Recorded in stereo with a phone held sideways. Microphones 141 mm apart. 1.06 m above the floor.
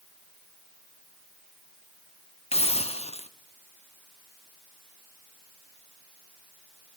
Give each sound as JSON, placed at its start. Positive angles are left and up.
{"t": 2.5, "sound": "a hiss", "side_deg": 50, "distance_m": 0.7}